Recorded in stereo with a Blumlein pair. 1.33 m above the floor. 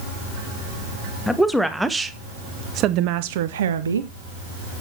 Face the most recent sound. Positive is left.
turn(degrees=-75)